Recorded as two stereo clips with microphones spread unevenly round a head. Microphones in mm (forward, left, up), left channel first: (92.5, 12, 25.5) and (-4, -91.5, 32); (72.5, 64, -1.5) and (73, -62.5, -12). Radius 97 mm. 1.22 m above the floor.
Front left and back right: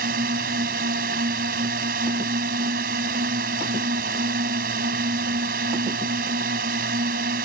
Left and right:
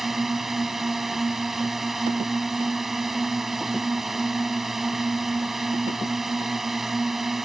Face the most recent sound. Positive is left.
turn(degrees=180)